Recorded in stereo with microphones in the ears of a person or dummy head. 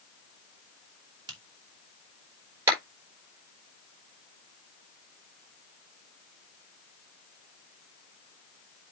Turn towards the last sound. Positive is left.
turn(degrees=-15)  # may be behind; listen again after turning